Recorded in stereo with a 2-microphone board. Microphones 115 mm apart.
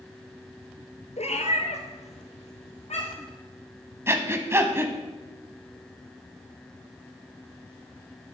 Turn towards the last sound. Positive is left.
turn(degrees=-20)  # may be behind; listen again after turning